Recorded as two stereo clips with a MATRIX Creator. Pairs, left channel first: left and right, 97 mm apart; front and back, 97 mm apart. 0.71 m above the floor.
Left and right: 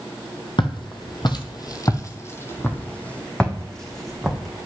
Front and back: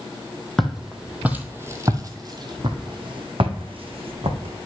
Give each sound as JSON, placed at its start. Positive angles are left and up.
{"t": 0.6, "sound": "footsteps", "azimuth_deg": 90, "distance_m": 1.2}